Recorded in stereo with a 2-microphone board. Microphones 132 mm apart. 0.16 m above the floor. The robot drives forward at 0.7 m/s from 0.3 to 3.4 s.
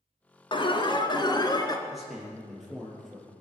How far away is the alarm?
About 1.5 m.